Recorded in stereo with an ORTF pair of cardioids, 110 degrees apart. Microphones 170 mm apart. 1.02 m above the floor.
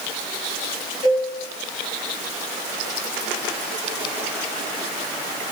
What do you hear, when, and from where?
1.0 s a cowbell: 25° left, 2.5 m